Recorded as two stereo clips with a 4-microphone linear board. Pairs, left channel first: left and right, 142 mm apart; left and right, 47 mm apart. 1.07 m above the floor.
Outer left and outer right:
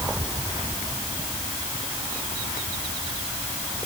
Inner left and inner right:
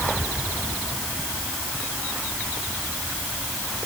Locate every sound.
Only background noise.